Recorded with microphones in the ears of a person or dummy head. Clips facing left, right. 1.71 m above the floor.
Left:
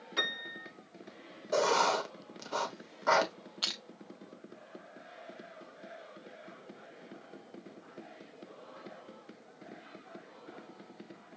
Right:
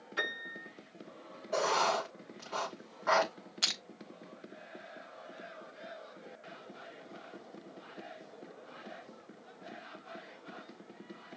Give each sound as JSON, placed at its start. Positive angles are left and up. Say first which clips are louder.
{"t": 0.2, "sound": "a piano", "louder": "even", "side_deg": 70, "distance_m": 5.0}
{"t": 1.5, "sound": "writing", "louder": "left 3 dB", "side_deg": 45, "distance_m": 1.1}
{"t": 3.6, "sound": "crushing", "louder": "even", "side_deg": -35, "distance_m": 0.7}